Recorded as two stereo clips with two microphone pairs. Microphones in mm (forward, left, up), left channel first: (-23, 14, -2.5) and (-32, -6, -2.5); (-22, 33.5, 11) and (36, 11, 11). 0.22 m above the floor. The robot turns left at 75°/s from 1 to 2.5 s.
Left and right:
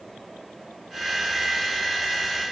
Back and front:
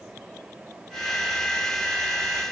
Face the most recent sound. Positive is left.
No sound to turn to.